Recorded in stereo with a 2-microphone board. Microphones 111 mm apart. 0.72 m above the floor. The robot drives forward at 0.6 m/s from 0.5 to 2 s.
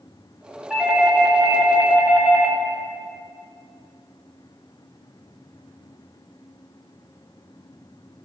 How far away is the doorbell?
About 1.6 m.